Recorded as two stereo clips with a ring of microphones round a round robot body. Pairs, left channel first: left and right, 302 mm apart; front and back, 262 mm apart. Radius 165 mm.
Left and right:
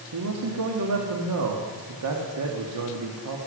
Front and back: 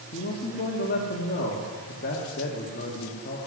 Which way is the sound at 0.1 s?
60° right.